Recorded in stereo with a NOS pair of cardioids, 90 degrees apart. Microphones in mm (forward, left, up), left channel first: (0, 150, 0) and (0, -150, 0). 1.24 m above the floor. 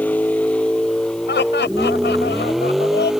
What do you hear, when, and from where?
0.0 s a vehicle: 5° left; by 3.2 s straight ahead
1.3 s laughter: 35° left